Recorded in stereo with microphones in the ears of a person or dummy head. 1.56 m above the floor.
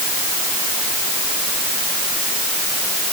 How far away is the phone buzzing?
I don't hear a phone buzzing.